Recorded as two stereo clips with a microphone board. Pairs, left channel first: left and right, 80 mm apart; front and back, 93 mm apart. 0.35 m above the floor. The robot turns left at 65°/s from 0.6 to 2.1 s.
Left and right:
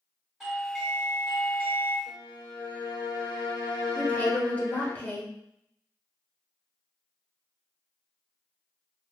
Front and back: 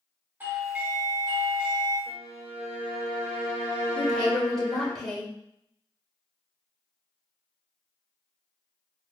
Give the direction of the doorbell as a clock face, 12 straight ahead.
6 o'clock.